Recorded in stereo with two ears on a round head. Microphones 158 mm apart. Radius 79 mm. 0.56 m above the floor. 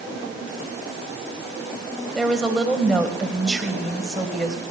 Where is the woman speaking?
Centre (ahead or behind), 3 m.